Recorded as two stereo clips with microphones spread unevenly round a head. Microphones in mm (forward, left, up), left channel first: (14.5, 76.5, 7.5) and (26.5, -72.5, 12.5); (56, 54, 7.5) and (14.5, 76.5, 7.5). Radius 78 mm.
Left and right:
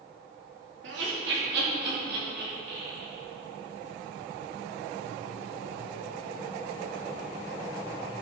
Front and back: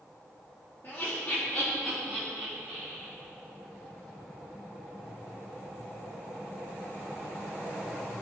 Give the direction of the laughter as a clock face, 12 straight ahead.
3 o'clock.